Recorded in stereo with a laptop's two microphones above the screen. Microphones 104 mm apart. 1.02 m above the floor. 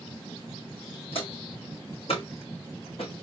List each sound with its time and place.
1.1 s footsteps: 65° left (ahead or behind), 3.5 m; by 3.2 s 75° left (ahead or behind), 4 m